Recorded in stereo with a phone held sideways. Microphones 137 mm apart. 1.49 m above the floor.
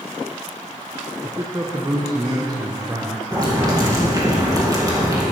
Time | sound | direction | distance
1.2 | a man speaking | 25° right (ahead or behind) | 0.8 m
3.3 | boiling | 25° right (ahead or behind) | 2.0 m